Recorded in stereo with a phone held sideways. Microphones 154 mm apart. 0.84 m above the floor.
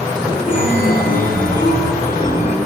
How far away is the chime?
About 1.3 m.